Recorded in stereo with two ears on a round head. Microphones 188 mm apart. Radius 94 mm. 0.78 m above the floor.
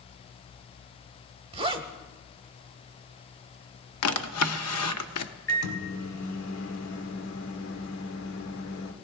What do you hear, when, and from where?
1.5 s a zipper: 25° right (ahead or behind), 1.0 m
4.0 s a drawer: 85° left, 0.7 m
5.5 s a microwave: 65° left (ahead or behind), 1.8 m